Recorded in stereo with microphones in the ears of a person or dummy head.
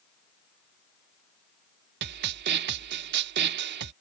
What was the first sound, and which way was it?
A snare drum, 55° right (ahead or behind).